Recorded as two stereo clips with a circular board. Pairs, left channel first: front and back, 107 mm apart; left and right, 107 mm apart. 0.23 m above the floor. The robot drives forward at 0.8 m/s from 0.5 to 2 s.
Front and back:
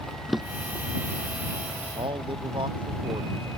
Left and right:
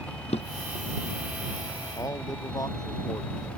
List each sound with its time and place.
0.3 s a drawer: 90° left; by 0.8 s 95° left
2.0 s a man speaking: 145° left